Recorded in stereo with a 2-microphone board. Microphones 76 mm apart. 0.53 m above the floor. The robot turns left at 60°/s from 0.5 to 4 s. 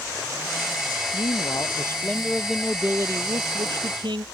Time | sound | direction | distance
1.1 | a man speaking | 80° left | ?